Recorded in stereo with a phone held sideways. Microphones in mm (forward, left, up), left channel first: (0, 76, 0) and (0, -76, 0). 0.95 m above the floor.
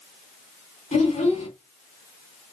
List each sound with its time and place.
0.9 s a child speaking: 50° left (ahead or behind), 1.9 m